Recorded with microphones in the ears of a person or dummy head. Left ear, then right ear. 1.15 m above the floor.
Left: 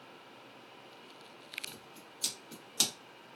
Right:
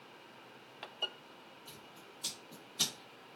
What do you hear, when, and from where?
1.7 s scissors: 80° left, 1.3 m